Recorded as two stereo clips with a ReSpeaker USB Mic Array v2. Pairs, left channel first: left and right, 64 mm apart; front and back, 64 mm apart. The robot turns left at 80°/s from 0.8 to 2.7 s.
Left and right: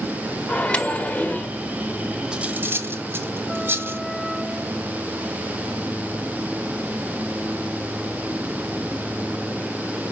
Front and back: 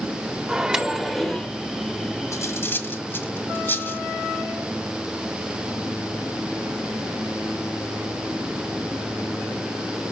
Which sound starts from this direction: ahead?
Cutlery clinking, at 2.3 s.